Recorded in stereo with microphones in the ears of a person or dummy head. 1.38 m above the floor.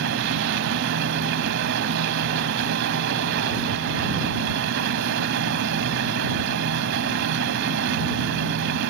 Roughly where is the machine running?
Right.